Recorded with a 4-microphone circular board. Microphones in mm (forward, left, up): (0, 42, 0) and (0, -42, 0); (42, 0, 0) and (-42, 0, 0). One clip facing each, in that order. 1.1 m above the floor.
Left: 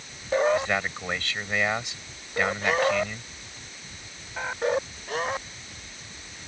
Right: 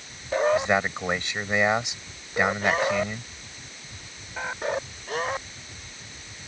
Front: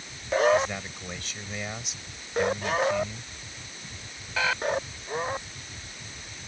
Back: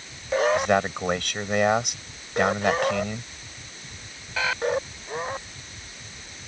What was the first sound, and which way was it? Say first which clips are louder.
A man speaking: right 3 dB, back 6 dB; 160° right.